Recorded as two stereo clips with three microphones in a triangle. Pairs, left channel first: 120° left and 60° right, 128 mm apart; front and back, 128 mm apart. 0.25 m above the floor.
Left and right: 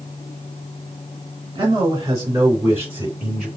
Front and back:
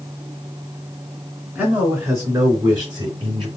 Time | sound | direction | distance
1.6 | a man speaking | 110° right | 3 m